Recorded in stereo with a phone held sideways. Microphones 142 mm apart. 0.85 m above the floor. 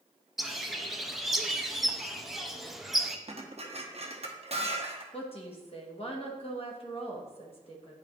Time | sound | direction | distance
0.4 | a bird | centre (ahead or behind) | 0.5 m
3.3 | dishes clattering | 45° right (ahead or behind) | 0.8 m
5.1 | a woman speaking | 45° left (ahead or behind) | 1.1 m